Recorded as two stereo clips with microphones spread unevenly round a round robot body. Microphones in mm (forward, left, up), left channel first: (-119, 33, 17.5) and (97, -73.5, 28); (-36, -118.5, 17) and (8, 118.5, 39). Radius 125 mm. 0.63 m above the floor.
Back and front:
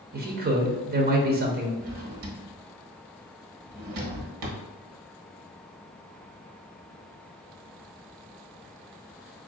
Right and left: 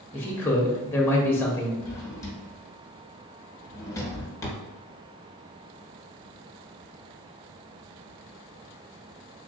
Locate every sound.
0.1 s a man speaking: 30° right, 0.8 m
1.8 s a drawer: 20° right, 1.0 m